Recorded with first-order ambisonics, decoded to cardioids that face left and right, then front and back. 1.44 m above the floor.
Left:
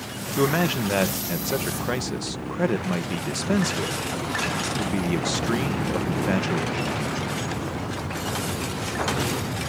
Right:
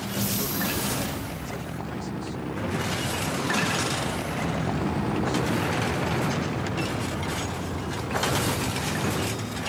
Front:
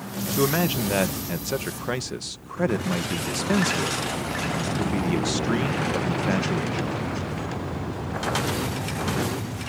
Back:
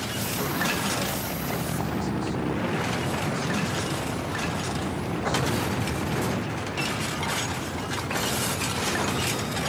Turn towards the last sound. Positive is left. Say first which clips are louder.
# left 11 dB, front 4 dB
turn(degrees=50)